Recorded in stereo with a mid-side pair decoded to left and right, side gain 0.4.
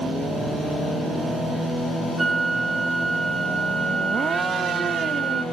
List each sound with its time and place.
2.2 s a flute: 30° right, 1.8 m